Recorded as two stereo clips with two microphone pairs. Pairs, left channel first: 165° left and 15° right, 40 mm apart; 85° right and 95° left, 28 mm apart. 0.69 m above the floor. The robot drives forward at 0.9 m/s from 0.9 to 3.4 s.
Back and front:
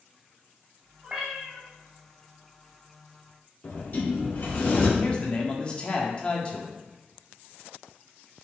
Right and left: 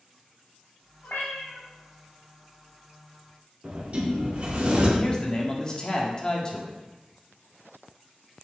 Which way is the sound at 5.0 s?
135° right.